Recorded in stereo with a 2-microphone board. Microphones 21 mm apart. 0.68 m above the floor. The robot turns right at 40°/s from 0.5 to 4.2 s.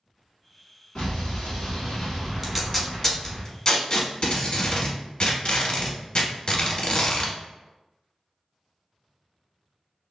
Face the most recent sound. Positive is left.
turn(degrees=50)  # may be behind; listen again after turning